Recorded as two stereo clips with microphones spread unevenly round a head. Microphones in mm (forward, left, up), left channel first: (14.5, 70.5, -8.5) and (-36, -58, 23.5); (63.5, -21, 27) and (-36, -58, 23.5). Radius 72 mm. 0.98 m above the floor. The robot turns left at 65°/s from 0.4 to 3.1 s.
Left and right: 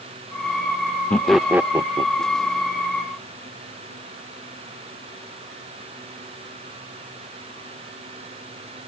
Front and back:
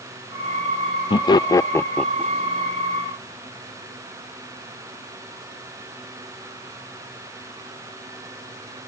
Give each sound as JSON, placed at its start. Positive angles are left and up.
{"t": 1.1, "sound": "laughter", "azimuth_deg": 10}